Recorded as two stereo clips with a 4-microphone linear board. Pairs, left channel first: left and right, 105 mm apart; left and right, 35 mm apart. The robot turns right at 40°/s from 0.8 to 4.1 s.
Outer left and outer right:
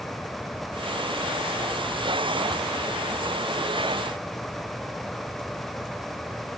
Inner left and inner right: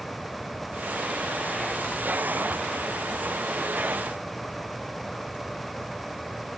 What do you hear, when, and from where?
Only background noise.